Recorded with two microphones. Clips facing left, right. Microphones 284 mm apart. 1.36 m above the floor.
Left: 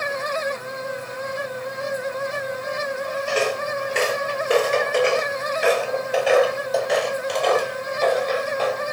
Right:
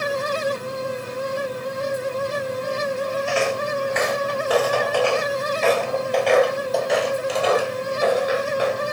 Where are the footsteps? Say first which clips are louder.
Right 1 dB; 45° left (ahead or behind), 1.9 m; by 8.8 s 15° right (ahead or behind), 3 m.